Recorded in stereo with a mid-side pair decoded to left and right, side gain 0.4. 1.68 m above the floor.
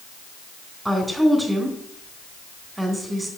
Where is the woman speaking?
15° right, 3.5 m.